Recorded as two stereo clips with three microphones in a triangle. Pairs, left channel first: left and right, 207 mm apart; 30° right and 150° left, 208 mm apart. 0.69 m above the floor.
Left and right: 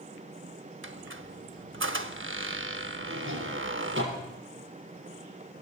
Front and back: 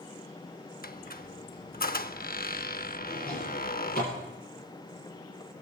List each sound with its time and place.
0.8 s a squeak: 75° right, 0.7 m
3.1 s a drawer: 75° right, 6.5 m